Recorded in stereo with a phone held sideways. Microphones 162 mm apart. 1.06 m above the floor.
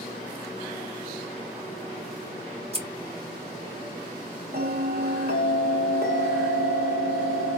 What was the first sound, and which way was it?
Scissors, 35° right (ahead or behind).